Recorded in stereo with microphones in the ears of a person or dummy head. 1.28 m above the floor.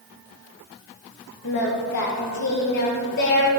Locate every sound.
1.4 s singing: 55° left (ahead or behind), 1.3 m